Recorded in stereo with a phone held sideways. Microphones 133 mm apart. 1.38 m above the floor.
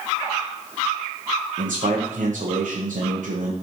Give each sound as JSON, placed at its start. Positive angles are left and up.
{"t": 1.6, "sound": "a man speaking", "side_deg": -70, "distance_m": 0.8}